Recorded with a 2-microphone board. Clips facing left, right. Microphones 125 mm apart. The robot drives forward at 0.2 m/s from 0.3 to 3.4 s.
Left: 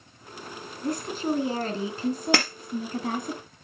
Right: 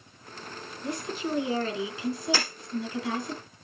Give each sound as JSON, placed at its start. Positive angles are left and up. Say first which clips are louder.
{"t": 0.8, "sound": "a woman speaking", "louder": "left 4 dB", "side_deg": 40, "distance_m": 2.5}
{"t": 2.3, "sound": "breaking glass", "louder": "left 6 dB", "side_deg": 75, "distance_m": 2.5}